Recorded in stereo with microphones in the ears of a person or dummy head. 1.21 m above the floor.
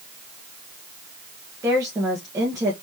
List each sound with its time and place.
1.6 s a woman speaking: 15° right (ahead or behind), 1.2 m